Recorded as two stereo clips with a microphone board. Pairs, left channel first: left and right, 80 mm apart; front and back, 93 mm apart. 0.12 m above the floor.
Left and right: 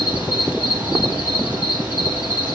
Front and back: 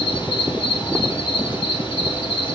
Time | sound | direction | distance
0.0 | an insect | 25° right | 4.5 m